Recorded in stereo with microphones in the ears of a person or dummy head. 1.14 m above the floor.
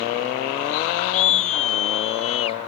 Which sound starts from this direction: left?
A scream, at 1.1 s.